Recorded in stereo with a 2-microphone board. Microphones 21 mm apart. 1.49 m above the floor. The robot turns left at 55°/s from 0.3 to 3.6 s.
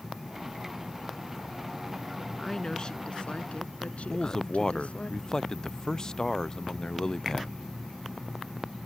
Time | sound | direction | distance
2.4 | a woman speaking | 165° left | ?
4.1 | a man speaking | 35° left (ahead or behind) | ?